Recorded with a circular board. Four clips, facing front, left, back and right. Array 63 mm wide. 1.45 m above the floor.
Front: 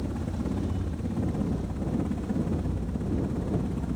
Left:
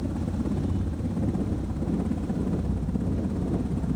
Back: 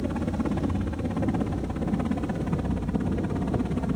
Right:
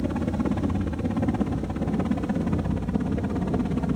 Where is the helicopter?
125° right.